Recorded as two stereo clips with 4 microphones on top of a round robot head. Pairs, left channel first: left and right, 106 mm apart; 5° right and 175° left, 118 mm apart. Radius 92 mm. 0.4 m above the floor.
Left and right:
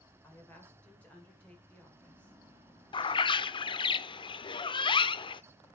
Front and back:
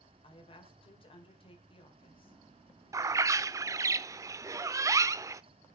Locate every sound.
0.2 s a woman speaking: 15° left, 2.0 m
2.9 s a bird: 115° left, 0.6 m